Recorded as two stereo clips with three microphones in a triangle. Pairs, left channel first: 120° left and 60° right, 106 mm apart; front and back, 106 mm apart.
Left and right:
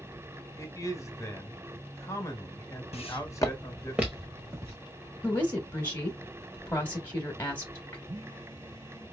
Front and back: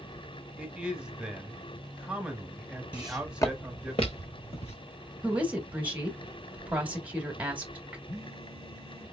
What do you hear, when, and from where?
0.6 s a man speaking: 110° left, 1.0 m
2.9 s footsteps: 105° left, 1.1 m; by 4.8 s straight ahead, 2.5 m
5.2 s a woman speaking: 140° left, 1.0 m
8.1 s a phone buzzing: 25° right, 3 m